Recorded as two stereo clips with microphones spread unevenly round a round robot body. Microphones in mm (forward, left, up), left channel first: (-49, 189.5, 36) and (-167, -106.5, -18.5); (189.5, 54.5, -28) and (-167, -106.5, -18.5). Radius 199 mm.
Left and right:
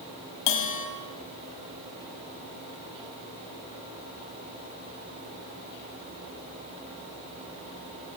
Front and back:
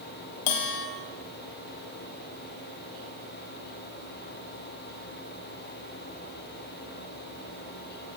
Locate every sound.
0.5 s a bell: 45° left, 3 m